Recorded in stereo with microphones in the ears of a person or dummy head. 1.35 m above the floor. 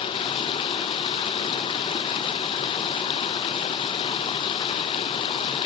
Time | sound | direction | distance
0.0 | running water | 30° left (ahead or behind) | 0.7 m